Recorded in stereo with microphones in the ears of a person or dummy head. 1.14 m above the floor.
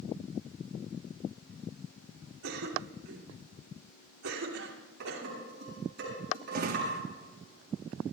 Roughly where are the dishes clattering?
Right.